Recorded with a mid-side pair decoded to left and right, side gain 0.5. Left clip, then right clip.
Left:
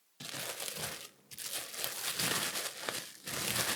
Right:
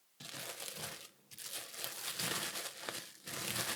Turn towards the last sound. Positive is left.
turn(degrees=30)